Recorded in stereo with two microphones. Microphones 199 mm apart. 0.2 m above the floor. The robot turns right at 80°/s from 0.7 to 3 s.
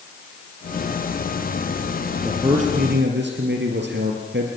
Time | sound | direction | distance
2.2 | a man speaking | 170° right | 3.5 m